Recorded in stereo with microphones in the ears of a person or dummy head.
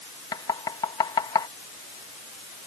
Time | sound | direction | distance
0.3 | knocking | 20° left (ahead or behind) | ?